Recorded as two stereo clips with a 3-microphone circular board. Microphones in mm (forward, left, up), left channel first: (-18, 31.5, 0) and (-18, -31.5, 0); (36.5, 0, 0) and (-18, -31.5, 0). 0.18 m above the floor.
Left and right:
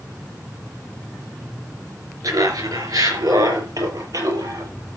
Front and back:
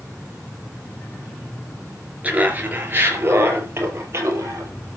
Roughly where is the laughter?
Right.